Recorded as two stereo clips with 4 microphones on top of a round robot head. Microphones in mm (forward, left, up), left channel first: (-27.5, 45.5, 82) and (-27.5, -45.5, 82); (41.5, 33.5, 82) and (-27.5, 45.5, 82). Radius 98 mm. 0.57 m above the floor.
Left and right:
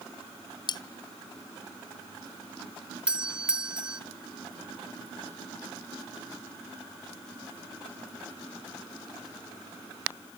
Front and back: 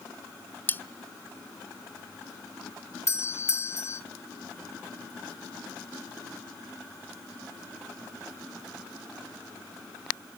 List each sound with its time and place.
0.7 s cutlery clinking: 55° left, 0.6 m
3.1 s a doorbell: 15° right, 1.2 m